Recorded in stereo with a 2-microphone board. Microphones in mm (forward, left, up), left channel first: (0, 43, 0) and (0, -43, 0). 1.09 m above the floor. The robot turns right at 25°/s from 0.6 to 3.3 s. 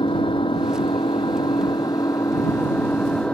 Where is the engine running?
100° left; by 3.3 s 165° left.